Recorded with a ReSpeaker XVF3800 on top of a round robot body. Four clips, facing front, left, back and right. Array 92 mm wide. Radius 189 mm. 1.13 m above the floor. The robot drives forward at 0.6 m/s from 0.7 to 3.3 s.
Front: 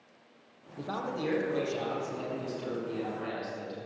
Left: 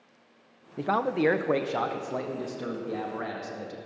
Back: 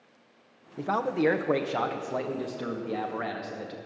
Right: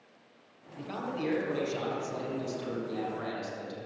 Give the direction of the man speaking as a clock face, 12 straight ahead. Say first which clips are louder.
Left 10 dB, back 8 dB; 8 o'clock.